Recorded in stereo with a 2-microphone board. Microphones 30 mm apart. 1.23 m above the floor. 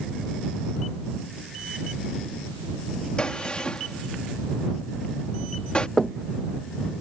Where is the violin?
I don't hear a violin.